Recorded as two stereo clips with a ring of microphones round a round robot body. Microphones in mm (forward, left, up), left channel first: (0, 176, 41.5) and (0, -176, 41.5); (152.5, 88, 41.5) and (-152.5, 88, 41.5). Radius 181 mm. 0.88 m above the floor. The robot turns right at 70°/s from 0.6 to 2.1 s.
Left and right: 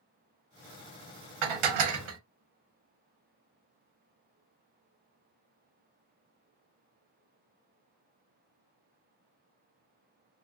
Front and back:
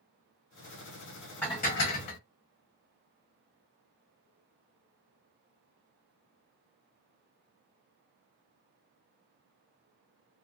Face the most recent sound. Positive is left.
turn(degrees=-35)